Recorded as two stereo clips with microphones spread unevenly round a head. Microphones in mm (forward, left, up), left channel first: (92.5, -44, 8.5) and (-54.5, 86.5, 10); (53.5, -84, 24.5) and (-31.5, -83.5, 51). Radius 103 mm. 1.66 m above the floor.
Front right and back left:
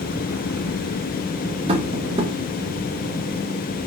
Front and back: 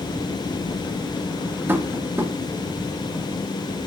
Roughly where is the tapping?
Behind.